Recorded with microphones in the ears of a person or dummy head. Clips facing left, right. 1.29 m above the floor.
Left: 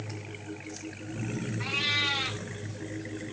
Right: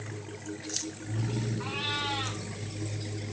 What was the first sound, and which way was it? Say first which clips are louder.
A cat meowing: right 1 dB; 30° left (ahead or behind).